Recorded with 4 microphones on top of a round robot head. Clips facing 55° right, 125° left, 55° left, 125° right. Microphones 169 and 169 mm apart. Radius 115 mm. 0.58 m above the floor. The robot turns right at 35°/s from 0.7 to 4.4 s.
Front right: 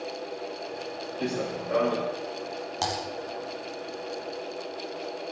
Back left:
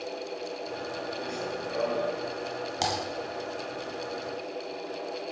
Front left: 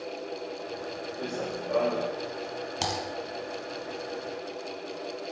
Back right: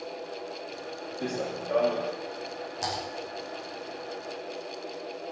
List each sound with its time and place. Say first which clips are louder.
1.2 s running footsteps: front right 4 dB, back right 2 dB; 55° right, 3 m; by 2.1 s 20° right, 3 m
2.8 s typing on a keyboard: even, front left 1 dB; 50° left, 3.5 m; by 3.0 s 55° left, 3.5 m